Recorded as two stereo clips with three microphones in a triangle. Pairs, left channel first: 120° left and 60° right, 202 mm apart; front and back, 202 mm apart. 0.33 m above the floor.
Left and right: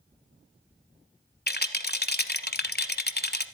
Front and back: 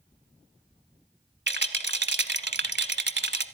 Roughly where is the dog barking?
I don't hear a dog barking.